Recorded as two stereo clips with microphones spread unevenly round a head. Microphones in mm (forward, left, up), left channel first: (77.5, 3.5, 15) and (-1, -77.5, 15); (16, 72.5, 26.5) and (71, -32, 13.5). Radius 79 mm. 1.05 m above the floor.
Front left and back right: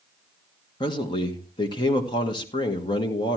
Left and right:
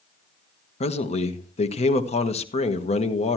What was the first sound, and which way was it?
A man speaking, 95° left.